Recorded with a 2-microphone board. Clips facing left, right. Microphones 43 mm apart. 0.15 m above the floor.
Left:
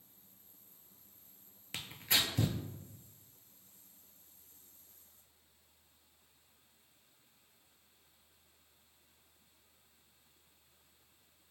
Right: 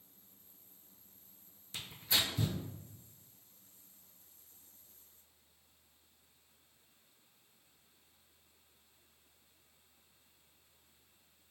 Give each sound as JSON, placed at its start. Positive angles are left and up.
{"t": 1.7, "sound": "tearing paper", "side_deg": 70, "distance_m": 0.6}